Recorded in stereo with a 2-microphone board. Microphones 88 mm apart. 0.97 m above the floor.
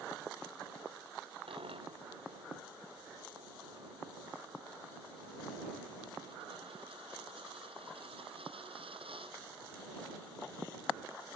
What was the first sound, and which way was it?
A dropped coin, 85° right.